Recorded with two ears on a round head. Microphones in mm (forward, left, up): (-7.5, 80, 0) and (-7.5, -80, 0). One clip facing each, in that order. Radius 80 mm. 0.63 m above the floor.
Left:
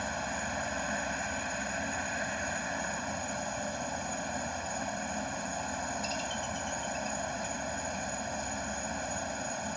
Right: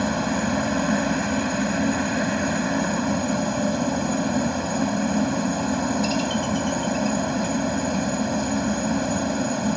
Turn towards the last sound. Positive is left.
turn(degrees=-70)  # may be behind; listen again after turning